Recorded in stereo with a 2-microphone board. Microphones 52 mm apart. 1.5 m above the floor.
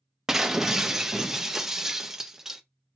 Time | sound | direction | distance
0.3 | breaking glass | 10° right (ahead or behind) | 0.6 m